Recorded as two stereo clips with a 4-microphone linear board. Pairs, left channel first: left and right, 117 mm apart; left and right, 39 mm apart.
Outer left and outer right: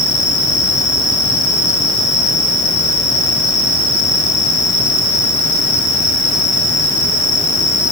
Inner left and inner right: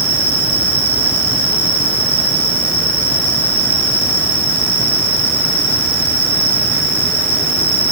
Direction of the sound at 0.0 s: 30° right (ahead or behind).